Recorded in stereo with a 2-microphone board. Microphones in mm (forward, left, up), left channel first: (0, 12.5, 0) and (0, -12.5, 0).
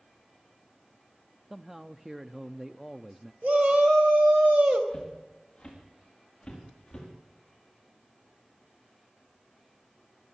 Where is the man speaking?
20° right (ahead or behind), 0.6 m.